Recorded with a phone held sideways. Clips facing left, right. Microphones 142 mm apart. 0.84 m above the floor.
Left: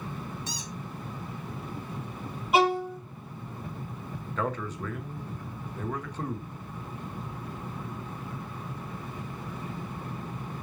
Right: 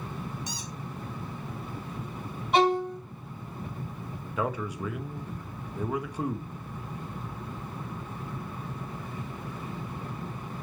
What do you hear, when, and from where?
0.5 s a squeak: 15° right (ahead or behind), 1.6 m
2.5 s a violin: 5° left (ahead or behind), 1.1 m
4.4 s a man speaking: 10° right (ahead or behind), 0.8 m